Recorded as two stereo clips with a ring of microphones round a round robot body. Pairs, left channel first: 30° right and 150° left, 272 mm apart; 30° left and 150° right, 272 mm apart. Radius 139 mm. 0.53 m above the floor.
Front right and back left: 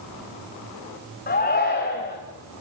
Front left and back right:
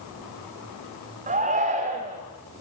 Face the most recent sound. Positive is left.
turn(degrees=-90)